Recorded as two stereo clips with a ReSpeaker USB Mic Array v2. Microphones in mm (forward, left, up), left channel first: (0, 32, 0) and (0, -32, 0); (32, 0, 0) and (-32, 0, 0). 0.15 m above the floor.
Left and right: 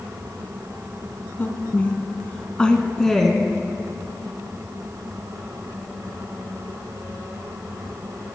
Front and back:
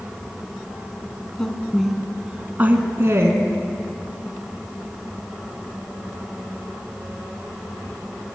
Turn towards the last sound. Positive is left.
turn(degrees=175)